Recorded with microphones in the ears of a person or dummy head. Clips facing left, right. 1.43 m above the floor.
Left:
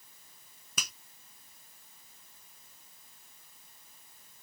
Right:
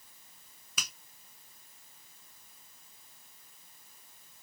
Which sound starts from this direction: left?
A finger snap, at 0.8 s.